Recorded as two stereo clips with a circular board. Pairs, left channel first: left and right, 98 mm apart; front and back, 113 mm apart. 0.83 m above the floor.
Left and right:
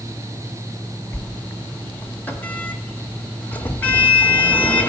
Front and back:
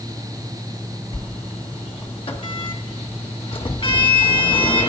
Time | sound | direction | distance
1.1 | a sliding door | 20° left | 1.3 m